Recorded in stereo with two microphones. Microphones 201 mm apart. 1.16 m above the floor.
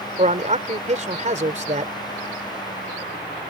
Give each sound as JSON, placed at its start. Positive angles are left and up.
{"t": 0.2, "sound": "a man speaking", "side_deg": -35}